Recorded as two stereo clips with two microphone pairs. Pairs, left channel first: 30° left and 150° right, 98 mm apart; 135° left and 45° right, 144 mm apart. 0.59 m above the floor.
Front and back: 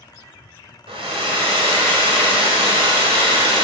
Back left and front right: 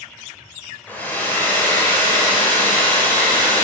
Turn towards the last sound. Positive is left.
turn(degrees=-150)